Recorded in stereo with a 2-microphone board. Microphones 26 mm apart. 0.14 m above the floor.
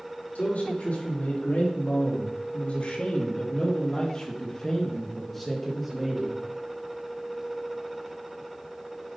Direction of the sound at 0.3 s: 75° left (ahead or behind).